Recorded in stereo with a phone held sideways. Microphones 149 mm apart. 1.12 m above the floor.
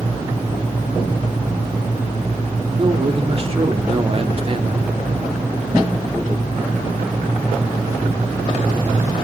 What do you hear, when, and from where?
2.8 s a man speaking: 40° right (ahead or behind), 2.5 m